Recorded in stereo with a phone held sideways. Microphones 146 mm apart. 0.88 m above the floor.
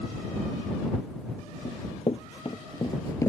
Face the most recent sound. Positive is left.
turn(degrees=20)  # may be behind; listen again after turning